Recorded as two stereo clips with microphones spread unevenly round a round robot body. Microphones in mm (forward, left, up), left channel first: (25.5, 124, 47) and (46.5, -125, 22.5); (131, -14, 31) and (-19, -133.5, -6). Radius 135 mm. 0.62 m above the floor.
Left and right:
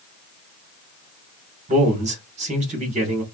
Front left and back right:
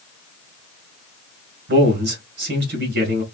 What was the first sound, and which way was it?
A man speaking, 145° right.